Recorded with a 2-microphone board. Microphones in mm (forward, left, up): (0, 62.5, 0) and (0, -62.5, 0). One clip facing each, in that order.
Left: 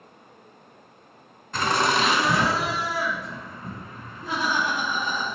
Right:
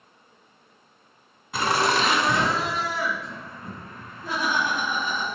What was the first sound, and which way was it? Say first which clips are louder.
Laughter: even; 5° right (ahead or behind).